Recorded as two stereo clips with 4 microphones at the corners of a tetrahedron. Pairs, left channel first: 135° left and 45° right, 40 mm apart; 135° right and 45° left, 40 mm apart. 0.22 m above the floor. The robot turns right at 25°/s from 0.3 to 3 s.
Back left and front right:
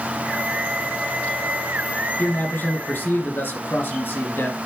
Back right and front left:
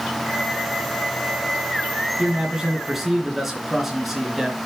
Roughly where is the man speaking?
Left.